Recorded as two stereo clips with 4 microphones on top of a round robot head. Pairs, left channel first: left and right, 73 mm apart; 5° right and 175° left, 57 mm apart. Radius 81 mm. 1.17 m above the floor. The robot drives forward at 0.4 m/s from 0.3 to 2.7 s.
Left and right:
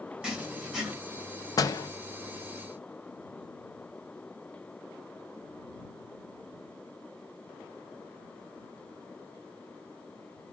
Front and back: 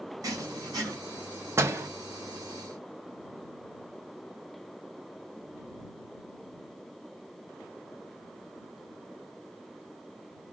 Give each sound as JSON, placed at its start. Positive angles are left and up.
{"t": 0.2, "sound": "writing", "azimuth_deg": -165, "distance_m": 2.5}
{"t": 1.6, "sound": "a door slam", "azimuth_deg": 130, "distance_m": 0.8}